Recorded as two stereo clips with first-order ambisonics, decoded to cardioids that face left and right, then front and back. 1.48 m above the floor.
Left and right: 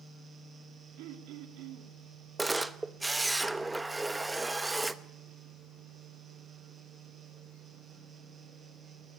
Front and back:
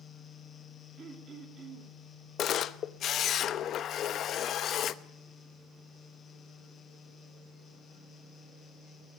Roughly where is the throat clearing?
Behind right.